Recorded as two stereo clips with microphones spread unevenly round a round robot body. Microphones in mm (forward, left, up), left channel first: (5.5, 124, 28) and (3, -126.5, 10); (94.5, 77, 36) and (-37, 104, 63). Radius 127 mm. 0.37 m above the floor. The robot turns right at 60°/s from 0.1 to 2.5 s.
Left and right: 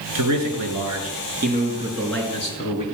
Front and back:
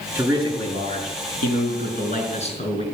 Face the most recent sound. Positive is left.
turn(degrees=30)